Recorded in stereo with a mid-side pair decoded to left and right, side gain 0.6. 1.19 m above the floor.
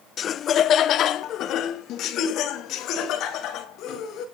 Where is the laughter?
45° left, 0.6 m; by 4.2 s 65° left, 3.5 m.